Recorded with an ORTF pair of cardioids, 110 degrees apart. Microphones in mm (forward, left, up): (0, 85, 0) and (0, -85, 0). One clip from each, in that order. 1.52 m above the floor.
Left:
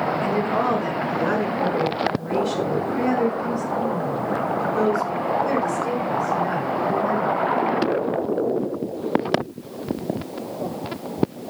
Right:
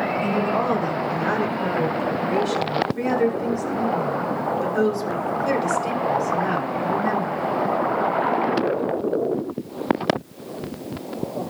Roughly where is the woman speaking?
Ahead.